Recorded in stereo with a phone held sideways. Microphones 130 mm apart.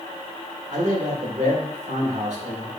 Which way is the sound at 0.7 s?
65° right (ahead or behind).